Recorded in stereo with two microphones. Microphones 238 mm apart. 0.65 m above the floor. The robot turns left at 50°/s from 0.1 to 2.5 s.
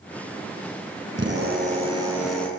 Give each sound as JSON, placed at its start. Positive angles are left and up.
{"t": 1.1, "sound": "a drill", "azimuth_deg": -120, "distance_m": 9.0}